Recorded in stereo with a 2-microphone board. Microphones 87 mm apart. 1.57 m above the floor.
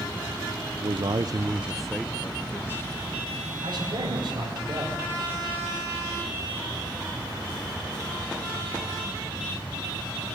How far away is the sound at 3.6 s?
About 6.5 m.